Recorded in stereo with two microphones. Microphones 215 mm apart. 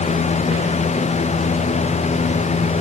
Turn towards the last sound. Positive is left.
No sound to turn to.